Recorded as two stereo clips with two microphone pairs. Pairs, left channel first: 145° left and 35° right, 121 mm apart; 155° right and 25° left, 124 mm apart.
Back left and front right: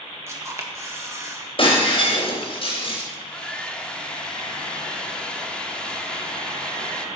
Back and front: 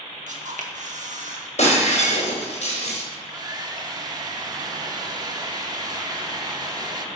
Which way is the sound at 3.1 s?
65° left.